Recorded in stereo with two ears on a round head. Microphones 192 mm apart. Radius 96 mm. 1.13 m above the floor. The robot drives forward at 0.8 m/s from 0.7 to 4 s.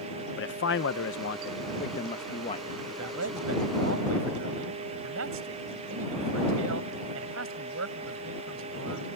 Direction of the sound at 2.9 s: 85° right.